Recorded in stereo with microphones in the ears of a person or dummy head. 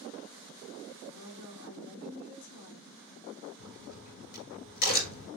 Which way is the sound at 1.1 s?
70° left (ahead or behind).